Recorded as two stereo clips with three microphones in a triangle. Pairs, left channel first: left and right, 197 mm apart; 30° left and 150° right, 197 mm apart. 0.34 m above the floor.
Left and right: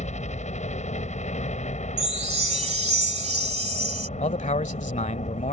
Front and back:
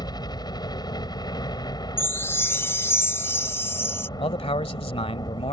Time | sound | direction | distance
0.0 | a helicopter | 85° left | ?
2.0 | a chime | 45° right | ?
4.2 | a man speaking | 70° left | ?